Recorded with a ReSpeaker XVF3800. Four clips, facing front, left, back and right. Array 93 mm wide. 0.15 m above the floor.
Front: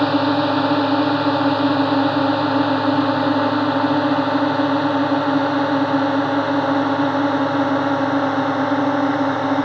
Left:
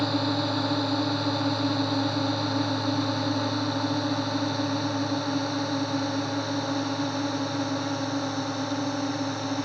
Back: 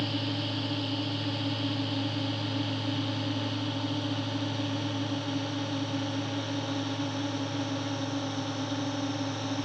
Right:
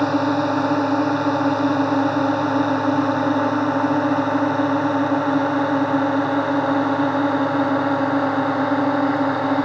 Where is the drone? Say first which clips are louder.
Right 8 dB, front 16 dB; 30° right; by 9.6 s 40° right.